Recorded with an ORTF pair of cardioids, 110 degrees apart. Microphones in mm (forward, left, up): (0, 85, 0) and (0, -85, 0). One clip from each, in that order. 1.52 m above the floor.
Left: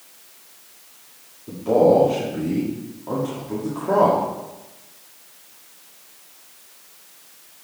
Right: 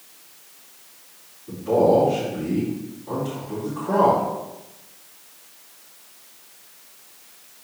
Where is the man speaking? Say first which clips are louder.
Left 2 dB; 60° left, 3 m.